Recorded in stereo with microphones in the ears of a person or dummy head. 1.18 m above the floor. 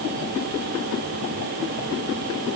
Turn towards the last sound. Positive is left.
No sound to turn to.